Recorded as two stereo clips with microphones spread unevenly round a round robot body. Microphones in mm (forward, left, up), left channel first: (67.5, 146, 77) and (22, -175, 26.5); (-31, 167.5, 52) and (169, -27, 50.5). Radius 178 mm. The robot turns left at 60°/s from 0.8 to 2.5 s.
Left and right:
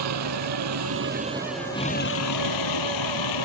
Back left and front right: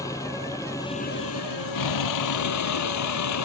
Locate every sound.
0.0 s a vehicle: 145° right; by 3.5 s 115° left